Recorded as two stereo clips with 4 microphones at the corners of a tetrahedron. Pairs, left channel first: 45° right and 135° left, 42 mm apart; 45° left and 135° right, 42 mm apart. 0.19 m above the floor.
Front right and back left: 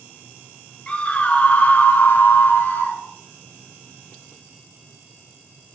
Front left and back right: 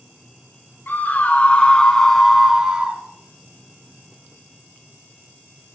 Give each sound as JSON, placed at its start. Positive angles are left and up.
{"t": 0.9, "sound": "a scream", "azimuth_deg": 10, "distance_m": 2.0}